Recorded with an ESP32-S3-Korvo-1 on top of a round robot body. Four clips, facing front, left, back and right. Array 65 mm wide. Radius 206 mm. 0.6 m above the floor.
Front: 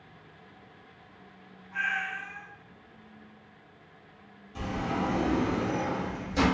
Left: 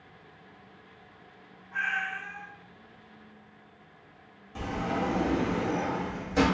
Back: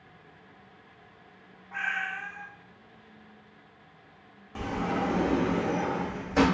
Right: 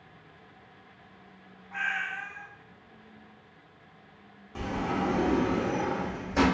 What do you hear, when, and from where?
1.7 s a cat meowing: 145° right, 0.8 m
4.5 s a sliding door: 155° right, 2.0 m